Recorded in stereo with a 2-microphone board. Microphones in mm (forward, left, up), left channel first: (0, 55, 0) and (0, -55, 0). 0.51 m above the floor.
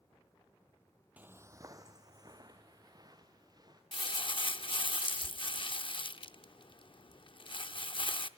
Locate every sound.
1.2 s footsteps: 15° right (ahead or behind), 0.5 m; by 3.8 s 40° right (ahead or behind), 3 m
3.9 s crumpling: 50° left (ahead or behind), 0.5 m